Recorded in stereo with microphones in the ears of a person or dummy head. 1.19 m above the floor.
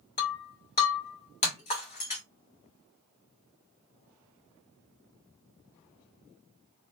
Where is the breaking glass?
35° left (ahead or behind), 1.6 m.